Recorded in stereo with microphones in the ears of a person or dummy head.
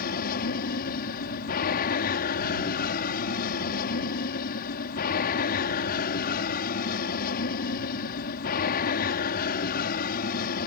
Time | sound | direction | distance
0.0 | an aircraft | 50° left (ahead or behind) | ?